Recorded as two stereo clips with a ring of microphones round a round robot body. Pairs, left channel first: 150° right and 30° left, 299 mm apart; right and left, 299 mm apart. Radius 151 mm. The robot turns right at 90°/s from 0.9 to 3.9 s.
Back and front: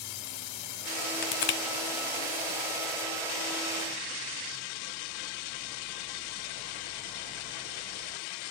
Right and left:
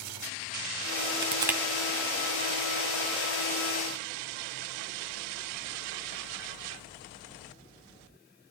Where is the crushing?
150° left, 1.4 m; by 1.6 s 175° right, 1.4 m.